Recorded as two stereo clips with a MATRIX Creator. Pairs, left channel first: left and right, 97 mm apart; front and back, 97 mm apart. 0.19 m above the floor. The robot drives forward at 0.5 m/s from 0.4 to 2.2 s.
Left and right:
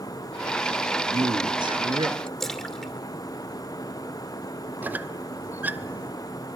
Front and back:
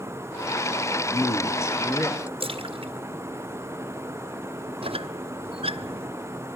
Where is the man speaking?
50° right, 2.5 m; by 2.3 s 65° right, 2.5 m.